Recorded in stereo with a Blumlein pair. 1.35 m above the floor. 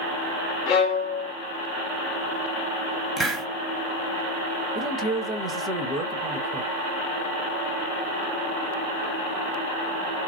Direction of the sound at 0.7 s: 40° left.